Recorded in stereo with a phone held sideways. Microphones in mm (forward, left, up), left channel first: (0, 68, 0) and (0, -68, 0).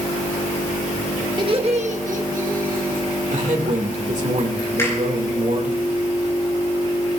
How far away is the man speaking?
About 2 m.